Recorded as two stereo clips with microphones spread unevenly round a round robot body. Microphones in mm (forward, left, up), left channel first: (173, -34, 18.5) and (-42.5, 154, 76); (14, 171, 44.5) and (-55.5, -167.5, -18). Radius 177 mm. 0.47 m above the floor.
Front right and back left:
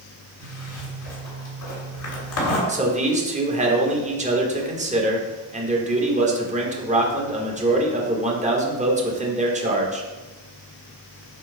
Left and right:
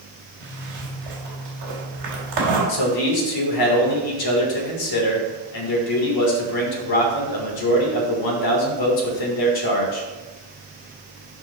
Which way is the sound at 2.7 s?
70° left.